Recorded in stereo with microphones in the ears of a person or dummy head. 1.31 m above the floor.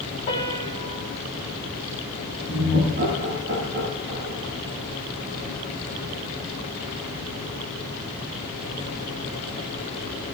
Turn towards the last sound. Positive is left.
turn(degrees=-50)  # may be behind; listen again after turning